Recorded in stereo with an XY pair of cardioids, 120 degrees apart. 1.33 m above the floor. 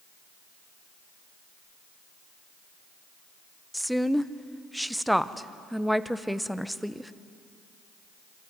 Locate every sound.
3.7 s a woman speaking: straight ahead, 0.7 m